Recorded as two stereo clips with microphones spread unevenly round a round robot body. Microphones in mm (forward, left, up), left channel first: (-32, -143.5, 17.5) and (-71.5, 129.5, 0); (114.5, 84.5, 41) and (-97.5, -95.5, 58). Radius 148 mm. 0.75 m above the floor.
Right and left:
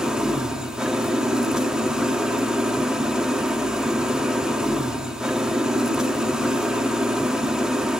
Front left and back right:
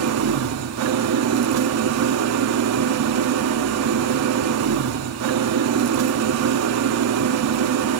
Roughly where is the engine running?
Behind.